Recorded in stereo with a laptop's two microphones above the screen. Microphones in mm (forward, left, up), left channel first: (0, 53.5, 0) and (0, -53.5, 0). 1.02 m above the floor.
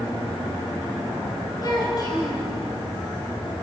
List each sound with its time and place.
1.6 s a child speaking: 40° left (ahead or behind), 4 m